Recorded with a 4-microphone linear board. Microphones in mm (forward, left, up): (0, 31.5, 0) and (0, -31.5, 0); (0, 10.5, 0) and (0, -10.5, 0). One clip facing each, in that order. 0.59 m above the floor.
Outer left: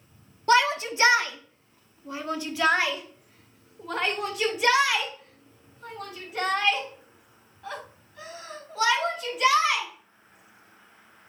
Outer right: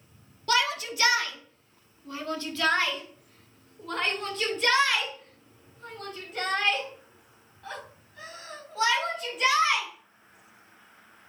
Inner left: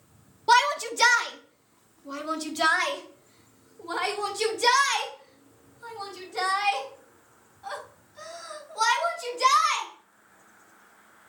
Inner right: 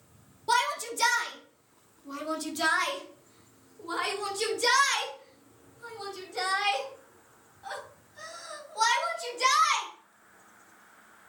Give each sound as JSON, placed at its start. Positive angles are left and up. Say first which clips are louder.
{"t": 0.5, "sound": "a shout", "louder": "outer left 5 dB, inner left 6 dB", "side_deg": 30, "distance_m": 1.1}